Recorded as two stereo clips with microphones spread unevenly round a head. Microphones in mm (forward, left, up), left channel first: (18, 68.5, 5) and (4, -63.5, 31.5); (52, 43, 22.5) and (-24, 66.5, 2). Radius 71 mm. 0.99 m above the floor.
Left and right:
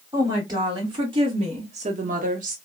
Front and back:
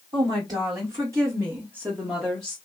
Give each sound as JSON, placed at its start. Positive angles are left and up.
{"t": 0.1, "sound": "a woman speaking", "azimuth_deg": -165, "distance_m": 1.7}